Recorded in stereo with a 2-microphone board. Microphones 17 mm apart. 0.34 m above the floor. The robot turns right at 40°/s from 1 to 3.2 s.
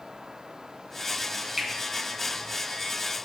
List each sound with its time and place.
1.6 s a finger snap: 10° right (ahead or behind), 2.5 m; by 1.7 s 5° right (ahead or behind), 2.5 m